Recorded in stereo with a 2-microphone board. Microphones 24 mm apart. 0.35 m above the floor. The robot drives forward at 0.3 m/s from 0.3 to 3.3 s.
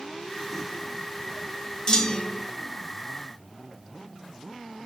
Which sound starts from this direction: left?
A clunk, at 1.9 s.